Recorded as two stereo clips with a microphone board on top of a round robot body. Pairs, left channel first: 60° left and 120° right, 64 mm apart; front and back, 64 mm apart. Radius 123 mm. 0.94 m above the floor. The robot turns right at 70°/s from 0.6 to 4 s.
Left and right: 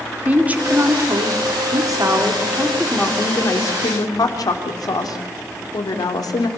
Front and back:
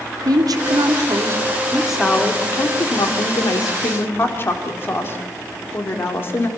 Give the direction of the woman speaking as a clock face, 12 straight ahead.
6 o'clock.